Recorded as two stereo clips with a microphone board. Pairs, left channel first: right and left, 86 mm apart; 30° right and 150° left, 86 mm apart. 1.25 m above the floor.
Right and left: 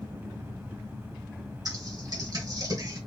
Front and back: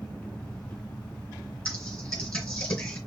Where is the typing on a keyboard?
55° left, 2.5 m.